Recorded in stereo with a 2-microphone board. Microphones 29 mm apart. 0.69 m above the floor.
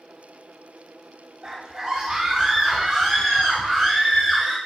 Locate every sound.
1.4 s a scream: 25° right (ahead or behind), 2.5 m; by 4.6 s 20° left (ahead or behind), 2.5 m